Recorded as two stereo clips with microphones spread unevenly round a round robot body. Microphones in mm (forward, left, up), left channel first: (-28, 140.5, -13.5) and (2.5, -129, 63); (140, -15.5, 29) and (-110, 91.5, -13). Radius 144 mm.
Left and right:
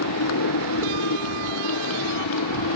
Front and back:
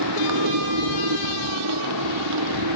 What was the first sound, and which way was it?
A motorcycle, 135° left.